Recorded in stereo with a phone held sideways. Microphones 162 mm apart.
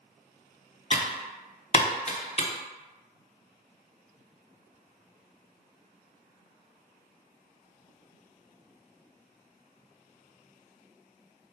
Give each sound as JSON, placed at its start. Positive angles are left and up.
{"t": 0.9, "sound": "typing on a keyboard", "side_deg": 40, "distance_m": 0.7}